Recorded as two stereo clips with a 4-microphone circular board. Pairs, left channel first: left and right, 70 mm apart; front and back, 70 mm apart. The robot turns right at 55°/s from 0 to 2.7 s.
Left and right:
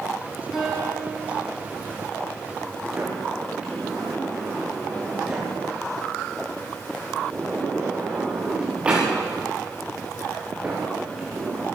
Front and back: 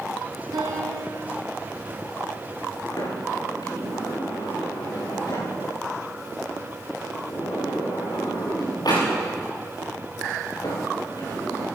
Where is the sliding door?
15° right, 8.5 m.